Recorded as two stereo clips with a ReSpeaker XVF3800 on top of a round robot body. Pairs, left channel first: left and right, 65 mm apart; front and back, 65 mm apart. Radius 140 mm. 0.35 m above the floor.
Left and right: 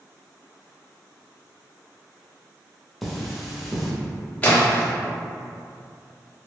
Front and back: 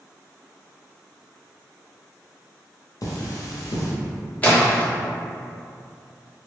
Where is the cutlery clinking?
Straight ahead, 0.9 m.